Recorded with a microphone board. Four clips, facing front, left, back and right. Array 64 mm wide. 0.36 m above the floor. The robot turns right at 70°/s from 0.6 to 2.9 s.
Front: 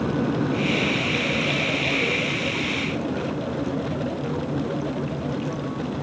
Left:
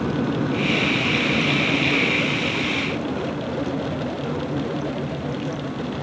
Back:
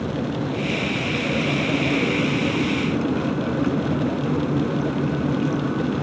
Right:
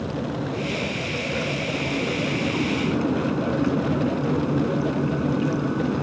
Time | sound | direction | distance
0.0 | an aircraft | 55° left | ?